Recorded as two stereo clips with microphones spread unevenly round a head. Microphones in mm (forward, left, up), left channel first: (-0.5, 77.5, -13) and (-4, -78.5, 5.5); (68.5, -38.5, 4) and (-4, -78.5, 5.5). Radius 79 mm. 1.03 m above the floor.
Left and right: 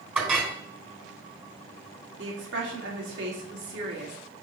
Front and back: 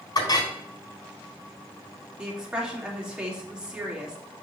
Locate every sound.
0.1 s a clink: 10° right, 3 m
2.2 s a woman speaking: 70° right, 2.5 m